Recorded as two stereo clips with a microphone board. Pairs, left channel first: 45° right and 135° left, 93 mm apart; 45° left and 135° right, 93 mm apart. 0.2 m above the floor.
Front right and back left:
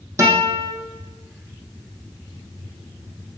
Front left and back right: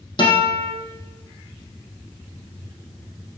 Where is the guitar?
75° left, 4 m.